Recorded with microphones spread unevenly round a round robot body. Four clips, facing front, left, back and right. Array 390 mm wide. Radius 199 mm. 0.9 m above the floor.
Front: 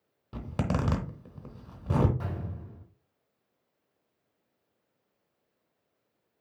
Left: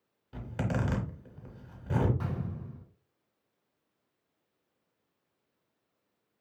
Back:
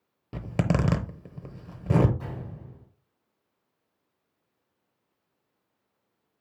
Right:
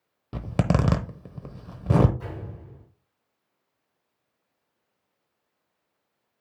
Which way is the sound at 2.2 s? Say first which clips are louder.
Left 1 dB, front 1 dB; 85° left.